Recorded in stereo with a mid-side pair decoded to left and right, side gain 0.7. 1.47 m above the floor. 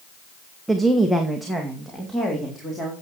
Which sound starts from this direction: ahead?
A woman speaking, at 0.7 s.